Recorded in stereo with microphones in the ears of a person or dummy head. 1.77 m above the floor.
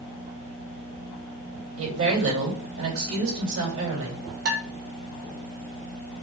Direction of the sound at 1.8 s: 80° right.